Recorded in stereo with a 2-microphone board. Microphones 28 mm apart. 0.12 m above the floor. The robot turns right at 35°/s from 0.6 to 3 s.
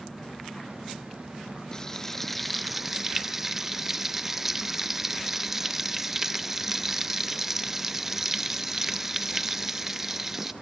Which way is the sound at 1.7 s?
150° left.